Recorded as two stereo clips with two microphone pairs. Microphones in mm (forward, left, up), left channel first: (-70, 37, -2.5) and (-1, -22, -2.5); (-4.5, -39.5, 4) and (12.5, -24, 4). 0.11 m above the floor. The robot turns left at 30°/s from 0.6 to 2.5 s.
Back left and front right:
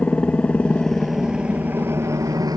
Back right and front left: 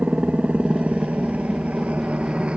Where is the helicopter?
65° left; by 2.6 s 5° left.